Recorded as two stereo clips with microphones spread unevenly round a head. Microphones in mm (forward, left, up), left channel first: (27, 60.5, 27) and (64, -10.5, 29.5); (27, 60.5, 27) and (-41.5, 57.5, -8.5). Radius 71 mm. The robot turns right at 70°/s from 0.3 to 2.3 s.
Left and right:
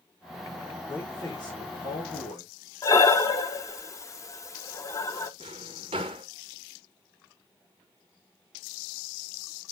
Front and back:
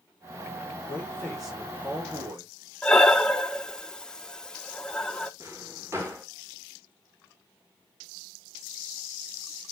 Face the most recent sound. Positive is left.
turn(degrees=-90)